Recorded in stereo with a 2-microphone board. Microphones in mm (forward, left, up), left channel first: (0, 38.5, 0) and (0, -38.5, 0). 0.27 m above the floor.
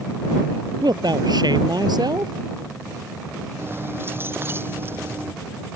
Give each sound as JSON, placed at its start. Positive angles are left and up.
{"t": 0.8, "sound": "a man speaking", "side_deg": -70}
{"t": 3.6, "sound": "keys jangling", "side_deg": -30}